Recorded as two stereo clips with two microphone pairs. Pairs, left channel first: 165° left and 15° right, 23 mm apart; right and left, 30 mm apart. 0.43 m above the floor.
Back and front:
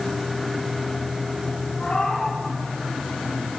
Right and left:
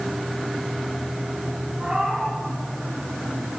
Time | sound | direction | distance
1.8 | a cat meowing | 150° left | 3.5 m